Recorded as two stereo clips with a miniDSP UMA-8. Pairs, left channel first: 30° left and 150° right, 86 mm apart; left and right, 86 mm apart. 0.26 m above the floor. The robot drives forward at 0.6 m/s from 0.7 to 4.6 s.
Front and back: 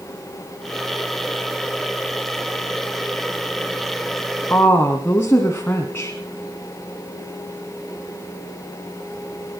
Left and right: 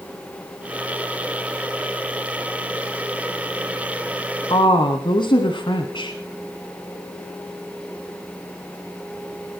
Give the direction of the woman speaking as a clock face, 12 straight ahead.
9 o'clock.